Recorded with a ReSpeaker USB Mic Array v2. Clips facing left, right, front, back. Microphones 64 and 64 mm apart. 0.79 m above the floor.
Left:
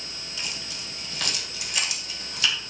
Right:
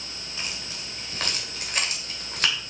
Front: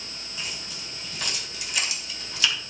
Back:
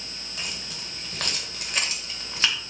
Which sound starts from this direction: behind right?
Keys jangling, at 0.4 s.